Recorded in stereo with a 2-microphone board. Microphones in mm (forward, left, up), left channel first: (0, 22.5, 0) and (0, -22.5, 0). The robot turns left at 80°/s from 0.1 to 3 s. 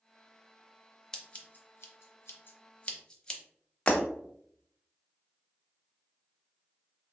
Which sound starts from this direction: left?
Breaking glass, at 3.9 s.